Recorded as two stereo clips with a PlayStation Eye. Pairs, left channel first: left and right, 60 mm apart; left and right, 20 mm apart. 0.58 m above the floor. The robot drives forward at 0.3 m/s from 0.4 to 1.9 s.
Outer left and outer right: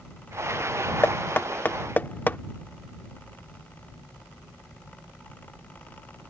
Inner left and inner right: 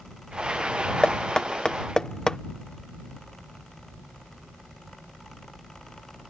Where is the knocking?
40° left (ahead or behind); by 2.4 s 35° left (ahead or behind).